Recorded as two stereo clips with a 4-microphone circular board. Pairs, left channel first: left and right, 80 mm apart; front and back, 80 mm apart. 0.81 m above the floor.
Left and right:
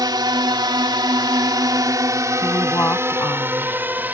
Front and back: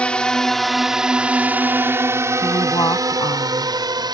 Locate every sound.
0.0 s a drone: 70° right; by 4.1 s 155° right
2.4 s a woman speaking: 35° left